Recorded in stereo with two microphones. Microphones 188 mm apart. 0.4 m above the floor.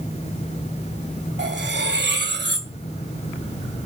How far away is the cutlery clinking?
About 1.1 m.